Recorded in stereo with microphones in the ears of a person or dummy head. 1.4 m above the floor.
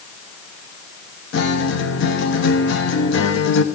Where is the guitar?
65° left (ahead or behind), 1.0 m.